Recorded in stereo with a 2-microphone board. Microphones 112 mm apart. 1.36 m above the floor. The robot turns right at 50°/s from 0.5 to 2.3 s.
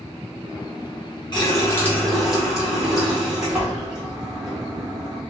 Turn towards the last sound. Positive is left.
turn(degrees=-175)